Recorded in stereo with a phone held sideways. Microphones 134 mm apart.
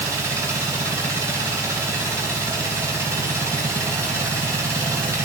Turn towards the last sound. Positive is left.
turn(degrees=-25)  # may be behind; listen again after turning